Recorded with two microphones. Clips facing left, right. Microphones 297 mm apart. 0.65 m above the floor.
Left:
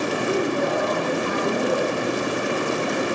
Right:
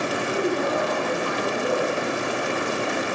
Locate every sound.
0.3 s a woman speaking: 60° left (ahead or behind), 7 m